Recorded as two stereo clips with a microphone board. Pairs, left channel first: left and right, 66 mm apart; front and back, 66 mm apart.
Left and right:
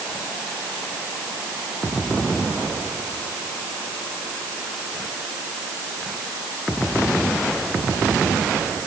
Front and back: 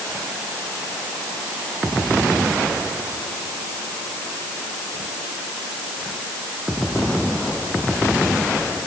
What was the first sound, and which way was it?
Only background noise.